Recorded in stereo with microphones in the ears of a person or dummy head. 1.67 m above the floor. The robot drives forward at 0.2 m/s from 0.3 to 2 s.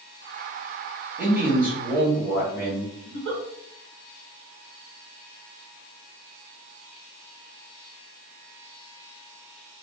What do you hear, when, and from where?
1.2 s a man speaking: 10° right (ahead or behind), 1.1 m
3.0 s a giggle: 60° right (ahead or behind), 1.1 m